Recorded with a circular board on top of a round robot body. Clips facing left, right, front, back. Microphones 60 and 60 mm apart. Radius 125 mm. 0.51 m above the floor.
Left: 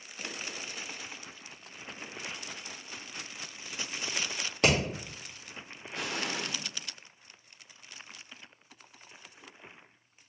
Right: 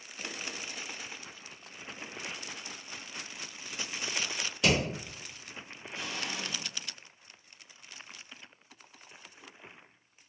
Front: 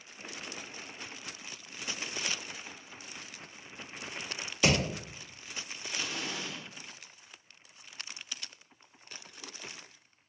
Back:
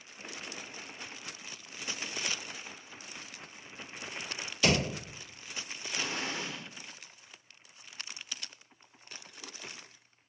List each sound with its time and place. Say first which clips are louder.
4.6 s hammering: left 1 dB, even; 70° left, 1.9 m
5.9 s an explosion: left 3 dB, back 2 dB; 125° left, 0.6 m